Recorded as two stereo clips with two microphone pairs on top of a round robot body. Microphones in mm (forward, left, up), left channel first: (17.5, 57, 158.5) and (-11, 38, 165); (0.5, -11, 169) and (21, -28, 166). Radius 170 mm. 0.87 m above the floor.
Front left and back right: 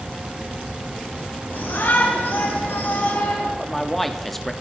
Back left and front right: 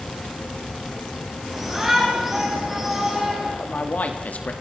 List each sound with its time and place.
1.5 s a shout: 35° left, 9 m
3.6 s a man speaking: 115° left, 3 m